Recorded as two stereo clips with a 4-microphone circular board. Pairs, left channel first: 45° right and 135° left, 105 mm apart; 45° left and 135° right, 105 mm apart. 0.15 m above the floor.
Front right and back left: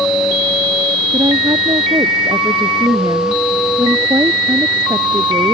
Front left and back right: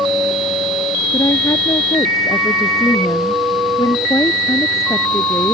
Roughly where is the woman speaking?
Left.